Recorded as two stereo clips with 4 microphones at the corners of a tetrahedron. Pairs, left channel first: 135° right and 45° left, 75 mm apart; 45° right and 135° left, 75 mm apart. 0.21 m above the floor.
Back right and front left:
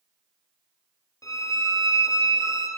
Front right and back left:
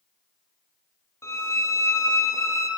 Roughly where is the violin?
Right.